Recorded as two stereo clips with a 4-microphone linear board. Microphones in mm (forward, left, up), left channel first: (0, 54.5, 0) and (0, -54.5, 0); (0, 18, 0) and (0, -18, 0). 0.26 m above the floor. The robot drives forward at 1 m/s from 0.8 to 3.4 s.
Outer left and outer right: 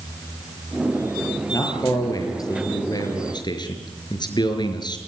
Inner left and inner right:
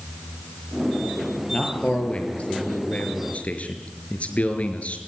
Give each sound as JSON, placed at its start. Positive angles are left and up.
{"t": 1.5, "sound": "a man speaking", "side_deg": 35, "distance_m": 7.0}